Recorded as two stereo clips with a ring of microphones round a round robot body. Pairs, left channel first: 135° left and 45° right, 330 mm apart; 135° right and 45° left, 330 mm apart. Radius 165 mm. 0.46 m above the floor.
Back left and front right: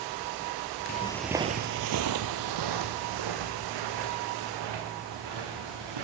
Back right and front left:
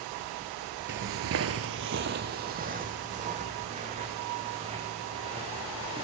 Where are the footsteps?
90° left, 0.5 m; by 6.0 s 30° right, 3 m.